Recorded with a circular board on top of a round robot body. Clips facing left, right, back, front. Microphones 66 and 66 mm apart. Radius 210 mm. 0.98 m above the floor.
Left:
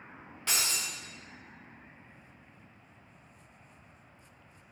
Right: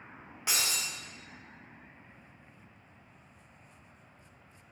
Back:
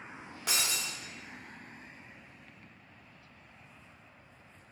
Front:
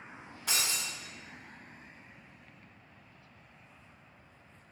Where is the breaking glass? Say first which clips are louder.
Even, even; 165° right, 1.3 m.